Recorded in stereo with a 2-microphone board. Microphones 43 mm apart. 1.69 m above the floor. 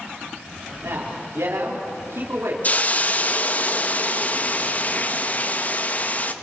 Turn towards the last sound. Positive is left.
turn(degrees=35)  # may be behind; listen again after turning